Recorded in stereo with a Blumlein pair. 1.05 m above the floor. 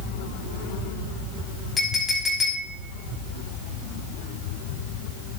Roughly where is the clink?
Ahead.